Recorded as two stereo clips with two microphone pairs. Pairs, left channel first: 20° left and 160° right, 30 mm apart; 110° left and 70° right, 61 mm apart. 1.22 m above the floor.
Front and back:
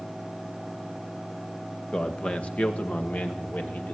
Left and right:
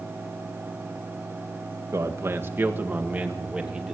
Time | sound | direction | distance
1.9 | a man speaking | 35° right | 1.6 m